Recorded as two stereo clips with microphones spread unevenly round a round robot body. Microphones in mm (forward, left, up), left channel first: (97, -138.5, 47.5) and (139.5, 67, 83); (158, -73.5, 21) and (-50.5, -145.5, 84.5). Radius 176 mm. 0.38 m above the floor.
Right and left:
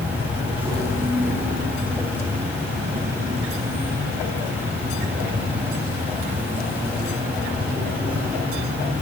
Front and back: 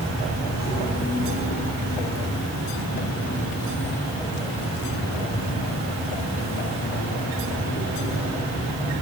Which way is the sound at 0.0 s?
5° right.